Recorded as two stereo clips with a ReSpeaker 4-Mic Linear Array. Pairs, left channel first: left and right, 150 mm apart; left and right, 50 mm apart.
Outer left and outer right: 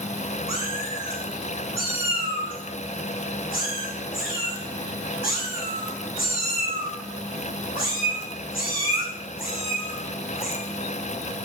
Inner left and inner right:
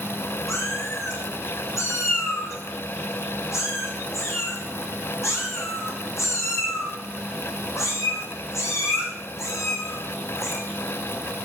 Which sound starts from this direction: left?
A cat meowing, at 0.5 s.